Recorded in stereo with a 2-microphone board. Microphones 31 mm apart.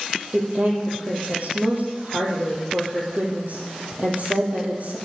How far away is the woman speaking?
About 4.5 m.